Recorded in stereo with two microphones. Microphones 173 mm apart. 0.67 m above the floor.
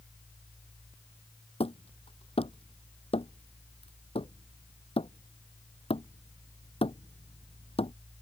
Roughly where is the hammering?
Left.